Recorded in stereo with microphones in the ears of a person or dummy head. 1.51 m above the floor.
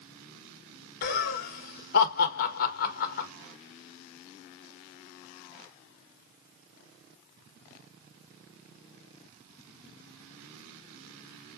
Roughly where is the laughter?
Left.